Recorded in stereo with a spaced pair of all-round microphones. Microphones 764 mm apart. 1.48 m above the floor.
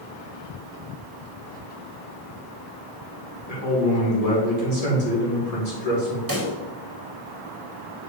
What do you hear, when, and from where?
3.5 s a man speaking: 50° left (ahead or behind), 2.5 m
6.3 s a pop: 25° right (ahead or behind), 2.0 m